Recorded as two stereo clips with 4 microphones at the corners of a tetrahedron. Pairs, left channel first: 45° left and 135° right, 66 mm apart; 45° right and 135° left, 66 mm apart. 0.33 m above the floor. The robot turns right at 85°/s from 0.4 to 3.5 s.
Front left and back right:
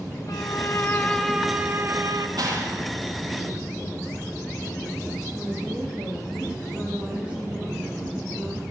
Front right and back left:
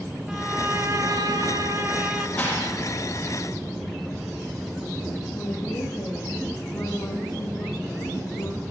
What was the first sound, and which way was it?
A violin, 55° left.